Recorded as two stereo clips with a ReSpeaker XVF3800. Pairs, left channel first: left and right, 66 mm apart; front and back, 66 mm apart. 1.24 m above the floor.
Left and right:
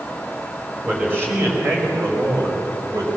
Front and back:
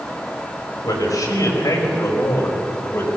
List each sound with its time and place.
0.8 s a man speaking: 30° right, 5 m; by 3.1 s 55° right, 4.5 m